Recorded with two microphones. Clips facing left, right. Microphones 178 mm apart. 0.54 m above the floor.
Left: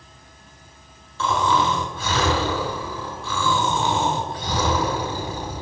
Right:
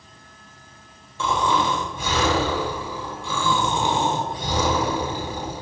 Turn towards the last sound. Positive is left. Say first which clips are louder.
# left 1 dB
turn(degrees=-15)  # may be behind; listen again after turning